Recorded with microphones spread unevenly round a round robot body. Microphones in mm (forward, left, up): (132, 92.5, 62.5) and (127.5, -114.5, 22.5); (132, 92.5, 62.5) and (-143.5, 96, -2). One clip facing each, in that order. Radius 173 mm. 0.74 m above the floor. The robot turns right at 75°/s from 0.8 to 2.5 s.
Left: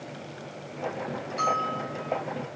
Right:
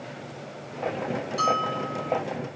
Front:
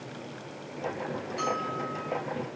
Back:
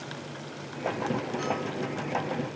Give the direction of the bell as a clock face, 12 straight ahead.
1 o'clock.